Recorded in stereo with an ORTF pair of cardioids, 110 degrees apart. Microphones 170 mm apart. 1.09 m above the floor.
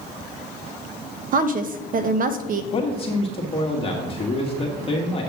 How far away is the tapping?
I don't hear tapping.